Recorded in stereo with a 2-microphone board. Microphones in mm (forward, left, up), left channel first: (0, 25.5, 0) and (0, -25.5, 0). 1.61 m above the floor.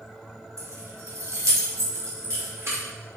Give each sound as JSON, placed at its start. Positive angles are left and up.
{"t": 0.6, "sound": "keys jangling", "side_deg": -65, "distance_m": 1.9}